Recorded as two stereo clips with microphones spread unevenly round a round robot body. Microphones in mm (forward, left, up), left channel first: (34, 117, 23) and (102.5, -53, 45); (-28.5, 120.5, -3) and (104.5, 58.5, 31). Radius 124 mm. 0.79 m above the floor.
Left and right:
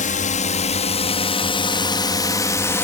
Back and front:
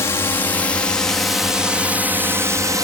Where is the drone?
105° left; by 2.9 s 45° left.